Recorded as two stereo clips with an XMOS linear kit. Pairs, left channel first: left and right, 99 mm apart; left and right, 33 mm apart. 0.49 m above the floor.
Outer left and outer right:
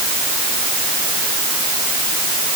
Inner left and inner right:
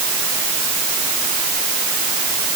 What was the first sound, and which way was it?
Only background noise.